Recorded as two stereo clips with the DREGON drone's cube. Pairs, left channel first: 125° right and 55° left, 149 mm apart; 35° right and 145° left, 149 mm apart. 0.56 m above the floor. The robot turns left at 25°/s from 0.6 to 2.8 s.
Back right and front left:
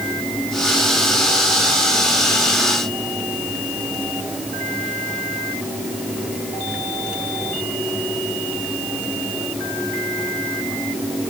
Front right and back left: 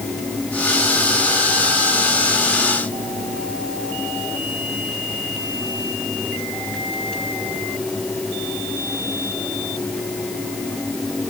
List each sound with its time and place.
Only background noise.